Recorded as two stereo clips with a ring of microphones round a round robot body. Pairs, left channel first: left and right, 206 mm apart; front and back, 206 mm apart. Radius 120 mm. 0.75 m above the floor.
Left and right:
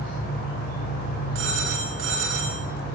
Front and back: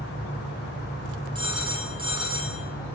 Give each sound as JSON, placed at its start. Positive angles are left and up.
{"t": 1.4, "sound": "a phone ringing", "azimuth_deg": -115, "distance_m": 7.5}